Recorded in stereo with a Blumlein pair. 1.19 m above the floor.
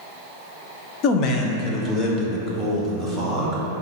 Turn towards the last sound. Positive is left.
turn(degrees=10)